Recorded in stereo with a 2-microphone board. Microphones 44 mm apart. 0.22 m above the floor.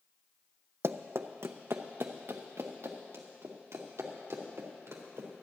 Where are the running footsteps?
75° right (ahead or behind), 0.5 m; by 5.4 s 80° right, 3.5 m.